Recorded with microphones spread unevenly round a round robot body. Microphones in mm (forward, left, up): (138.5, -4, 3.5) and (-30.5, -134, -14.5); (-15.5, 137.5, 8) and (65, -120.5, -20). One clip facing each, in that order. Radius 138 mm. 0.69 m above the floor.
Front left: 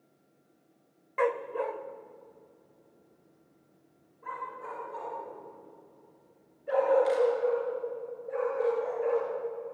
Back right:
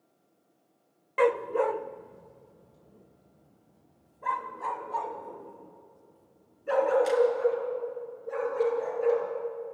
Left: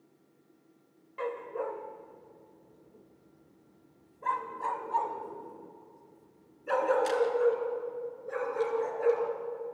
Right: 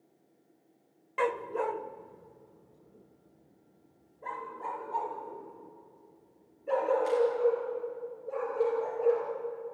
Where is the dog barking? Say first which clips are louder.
Back right 5 dB, right 4 dB; 95° right, 0.8 m; by 9.3 s 160° left, 4.5 m.